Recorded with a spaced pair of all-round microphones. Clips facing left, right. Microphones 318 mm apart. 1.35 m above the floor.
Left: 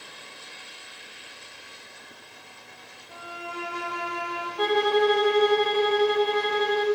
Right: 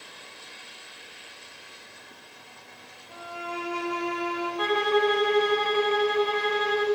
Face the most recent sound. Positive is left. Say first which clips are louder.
# left 3 dB
turn(degrees=55)  # may be behind; listen again after turning